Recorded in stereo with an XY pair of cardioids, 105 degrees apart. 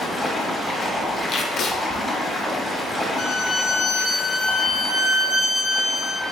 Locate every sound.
0.0 s running water: 30° left, 1.3 m
1.3 s tape being pulled: 60° left, 0.6 m
3.2 s a violin: 35° left, 0.7 m